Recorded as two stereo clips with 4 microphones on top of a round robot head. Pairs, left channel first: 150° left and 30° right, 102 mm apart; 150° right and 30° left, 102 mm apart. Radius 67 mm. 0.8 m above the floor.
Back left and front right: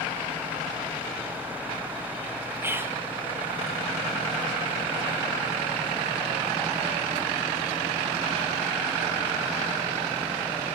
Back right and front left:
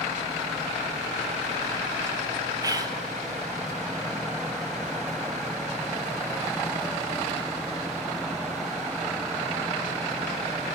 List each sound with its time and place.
2.6 s whispering: 20° left, 0.8 m